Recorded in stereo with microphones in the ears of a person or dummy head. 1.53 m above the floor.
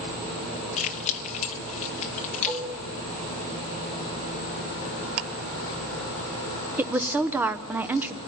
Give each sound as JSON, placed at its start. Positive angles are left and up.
{"t": 0.8, "sound": "keys jangling", "side_deg": 40, "distance_m": 1.1}
{"t": 2.5, "sound": "dishes clattering", "side_deg": -15, "distance_m": 3.0}
{"t": 5.2, "sound": "ticking", "side_deg": -65, "distance_m": 1.2}
{"t": 6.8, "sound": "a woman speaking", "side_deg": -5, "distance_m": 0.8}